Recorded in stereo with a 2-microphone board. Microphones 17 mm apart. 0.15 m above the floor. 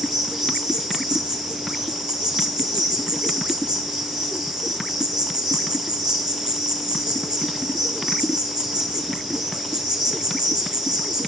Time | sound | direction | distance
0.0 | an insect | 65° right (ahead or behind) | 1.7 m